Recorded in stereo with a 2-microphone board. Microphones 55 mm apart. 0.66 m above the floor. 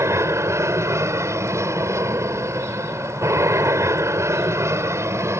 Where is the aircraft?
60° right (ahead or behind); by 5.4 s 55° right (ahead or behind).